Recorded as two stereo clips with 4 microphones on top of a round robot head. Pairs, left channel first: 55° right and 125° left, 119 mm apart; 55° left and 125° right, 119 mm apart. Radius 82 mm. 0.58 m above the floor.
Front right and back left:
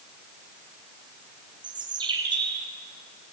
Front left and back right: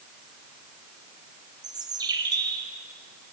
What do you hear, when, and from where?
1.6 s a bird: 175° left, 3 m